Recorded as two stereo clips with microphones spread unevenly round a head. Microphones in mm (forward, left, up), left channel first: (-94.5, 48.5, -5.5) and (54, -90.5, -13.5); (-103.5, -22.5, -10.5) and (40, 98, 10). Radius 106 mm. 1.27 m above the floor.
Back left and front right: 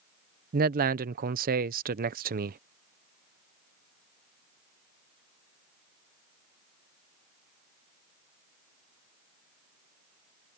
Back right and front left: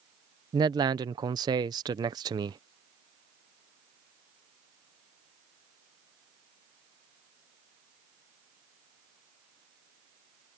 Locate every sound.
0.5 s a man speaking: 30° right